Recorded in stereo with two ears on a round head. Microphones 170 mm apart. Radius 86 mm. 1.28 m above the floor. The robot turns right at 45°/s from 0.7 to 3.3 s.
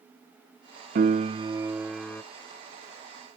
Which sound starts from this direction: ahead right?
A piano, at 0.9 s.